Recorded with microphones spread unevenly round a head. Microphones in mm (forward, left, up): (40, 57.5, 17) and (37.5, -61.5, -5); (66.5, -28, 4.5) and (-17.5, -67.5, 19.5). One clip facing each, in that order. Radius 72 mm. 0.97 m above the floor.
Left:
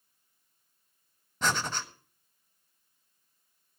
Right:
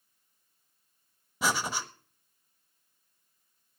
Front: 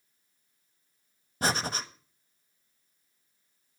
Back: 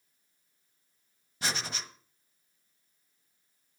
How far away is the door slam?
I don't hear a door slam.